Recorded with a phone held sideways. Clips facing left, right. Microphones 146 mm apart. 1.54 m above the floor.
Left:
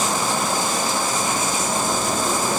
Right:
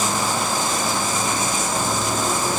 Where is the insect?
50° left (ahead or behind), 1.7 m.